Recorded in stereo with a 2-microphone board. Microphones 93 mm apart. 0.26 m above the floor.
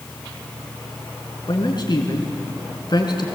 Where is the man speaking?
55° left (ahead or behind), 3 m.